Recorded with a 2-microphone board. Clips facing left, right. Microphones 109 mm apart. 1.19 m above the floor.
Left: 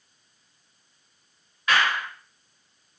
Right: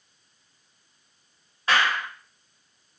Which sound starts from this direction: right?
A clap, at 1.7 s.